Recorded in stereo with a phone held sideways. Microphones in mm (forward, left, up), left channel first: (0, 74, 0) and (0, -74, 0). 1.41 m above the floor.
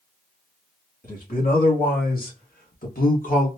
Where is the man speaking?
80° left, 2 m; by 3.5 s 65° left (ahead or behind), 1.3 m.